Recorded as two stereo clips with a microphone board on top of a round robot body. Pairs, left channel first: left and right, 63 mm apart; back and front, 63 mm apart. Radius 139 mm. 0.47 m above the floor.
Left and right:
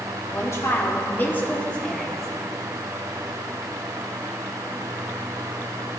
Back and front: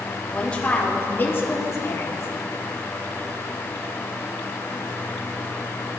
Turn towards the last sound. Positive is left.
turn(degrees=175)